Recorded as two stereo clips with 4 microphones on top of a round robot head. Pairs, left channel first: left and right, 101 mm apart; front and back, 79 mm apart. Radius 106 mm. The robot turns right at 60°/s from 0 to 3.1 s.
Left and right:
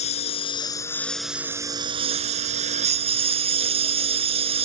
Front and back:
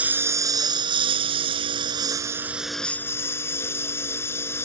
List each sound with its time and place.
0.0 s a lawn mower: 105° left; by 4.7 s 70° right